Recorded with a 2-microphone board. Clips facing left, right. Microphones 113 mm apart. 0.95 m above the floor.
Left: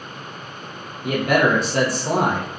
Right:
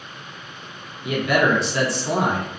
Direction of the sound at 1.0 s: 45° left (ahead or behind).